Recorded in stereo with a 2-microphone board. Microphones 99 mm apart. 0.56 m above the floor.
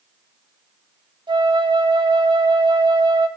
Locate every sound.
1.3 s a flute: 50° right (ahead or behind), 0.9 m